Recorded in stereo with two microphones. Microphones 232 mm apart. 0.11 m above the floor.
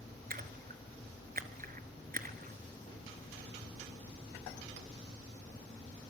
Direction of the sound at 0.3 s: 40° right (ahead or behind).